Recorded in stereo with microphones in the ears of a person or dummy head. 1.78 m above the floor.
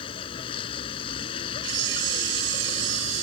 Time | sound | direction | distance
0.0 | a vehicle | 30° left (ahead or behind) | ?
1.6 | a camera shutter | 65° right (ahead or behind) | ?